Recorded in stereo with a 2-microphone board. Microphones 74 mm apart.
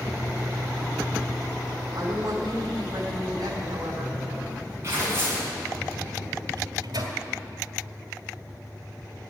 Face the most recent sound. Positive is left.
turn(degrees=-75)  # may be behind; listen again after turning